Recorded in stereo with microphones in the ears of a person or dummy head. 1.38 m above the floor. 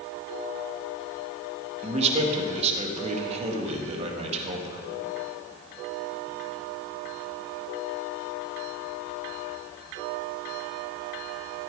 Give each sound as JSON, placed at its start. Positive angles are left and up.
{"t": 1.8, "sound": "a man speaking", "side_deg": -35, "distance_m": 1.8}